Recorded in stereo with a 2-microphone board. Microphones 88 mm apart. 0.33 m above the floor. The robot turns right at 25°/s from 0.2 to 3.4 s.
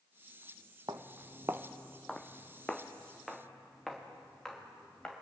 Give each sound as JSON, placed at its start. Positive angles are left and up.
{"t": 0.9, "sound": "footsteps", "side_deg": -65, "distance_m": 0.9}